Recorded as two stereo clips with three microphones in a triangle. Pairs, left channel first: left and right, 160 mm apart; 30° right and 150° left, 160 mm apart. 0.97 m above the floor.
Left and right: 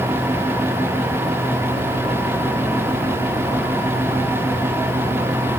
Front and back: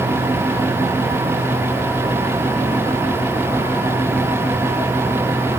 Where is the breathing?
I don't hear breathing.